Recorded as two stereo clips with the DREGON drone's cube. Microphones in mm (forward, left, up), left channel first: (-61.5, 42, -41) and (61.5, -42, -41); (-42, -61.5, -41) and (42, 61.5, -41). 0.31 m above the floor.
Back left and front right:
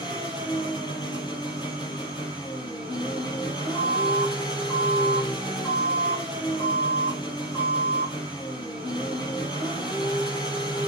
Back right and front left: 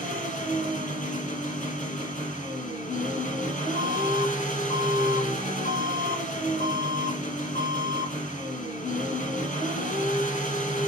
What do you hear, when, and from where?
0.0 s an engine running: 155° right, 6.5 m
3.8 s an alarm: 140° right, 5.5 m